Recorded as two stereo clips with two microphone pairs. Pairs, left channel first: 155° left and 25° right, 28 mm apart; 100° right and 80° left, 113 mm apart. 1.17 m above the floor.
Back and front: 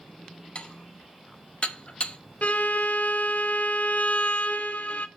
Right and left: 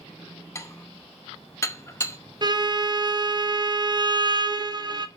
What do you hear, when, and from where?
0.6 s dishes clattering: 165° right, 0.8 m
2.4 s a violin: 125° left, 0.8 m